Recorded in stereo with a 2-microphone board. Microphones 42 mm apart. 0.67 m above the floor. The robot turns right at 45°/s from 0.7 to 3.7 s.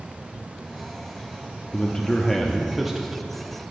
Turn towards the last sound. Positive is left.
turn(degrees=-135)